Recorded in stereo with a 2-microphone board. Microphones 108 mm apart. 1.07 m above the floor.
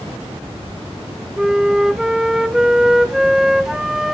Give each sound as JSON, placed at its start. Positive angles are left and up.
{"t": 1.4, "sound": "a flute", "side_deg": -5, "distance_m": 0.6}